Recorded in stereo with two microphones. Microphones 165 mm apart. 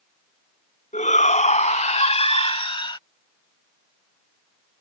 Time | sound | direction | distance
0.9 | a shout | 50° left (ahead or behind) | ?